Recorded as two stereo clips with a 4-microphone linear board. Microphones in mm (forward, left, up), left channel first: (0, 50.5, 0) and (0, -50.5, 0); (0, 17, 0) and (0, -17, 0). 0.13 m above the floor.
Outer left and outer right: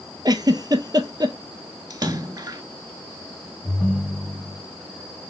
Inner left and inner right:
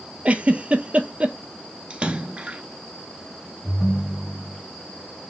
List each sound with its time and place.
0.2 s a giggle: 40° right (ahead or behind), 0.6 m
1.9 s a splash: 40° right (ahead or behind), 0.6 m
3.6 s a ringtone: 10° left (ahead or behind), 3 m